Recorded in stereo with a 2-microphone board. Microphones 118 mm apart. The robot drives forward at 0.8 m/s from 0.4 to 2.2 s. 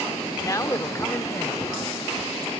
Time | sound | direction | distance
0.4 | a man speaking | 30° left (ahead or behind) | ?